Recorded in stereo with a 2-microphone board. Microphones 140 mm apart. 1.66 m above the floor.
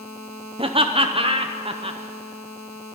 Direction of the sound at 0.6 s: 40° right (ahead or behind).